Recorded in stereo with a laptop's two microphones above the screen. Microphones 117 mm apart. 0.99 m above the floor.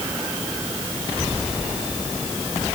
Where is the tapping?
I don't hear tapping.